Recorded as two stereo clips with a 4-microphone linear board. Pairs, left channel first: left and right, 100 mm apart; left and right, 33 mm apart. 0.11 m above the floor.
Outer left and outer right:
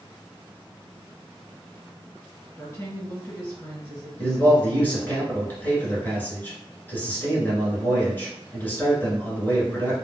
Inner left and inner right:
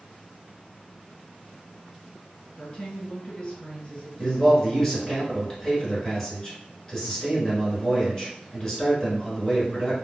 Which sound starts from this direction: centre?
A man speaking, at 4.2 s.